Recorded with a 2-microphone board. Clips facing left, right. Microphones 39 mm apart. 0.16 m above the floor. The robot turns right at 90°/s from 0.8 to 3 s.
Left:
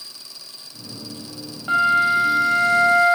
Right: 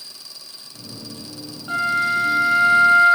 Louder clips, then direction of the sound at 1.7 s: Left 3 dB; 115° left.